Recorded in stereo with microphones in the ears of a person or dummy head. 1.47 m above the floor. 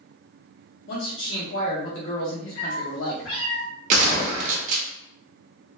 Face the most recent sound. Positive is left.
turn(degrees=-45)  # may be behind; listen again after turning